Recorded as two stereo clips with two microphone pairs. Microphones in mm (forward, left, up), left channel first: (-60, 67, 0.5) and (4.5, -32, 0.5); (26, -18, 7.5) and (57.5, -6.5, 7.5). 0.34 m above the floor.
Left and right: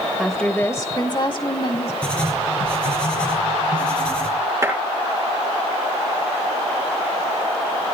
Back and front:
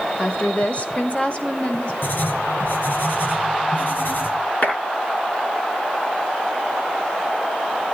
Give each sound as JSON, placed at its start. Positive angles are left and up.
{"t": 0.2, "sound": "a woman speaking", "azimuth_deg": -145, "distance_m": 1.1}
{"t": 2.0, "sound": "writing", "azimuth_deg": -155, "distance_m": 3.5}
{"t": 4.6, "sound": "a clap", "azimuth_deg": -125, "distance_m": 7.0}